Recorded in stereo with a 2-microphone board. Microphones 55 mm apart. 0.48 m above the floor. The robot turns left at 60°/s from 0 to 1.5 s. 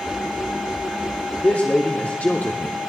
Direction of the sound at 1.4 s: 35° left (ahead or behind).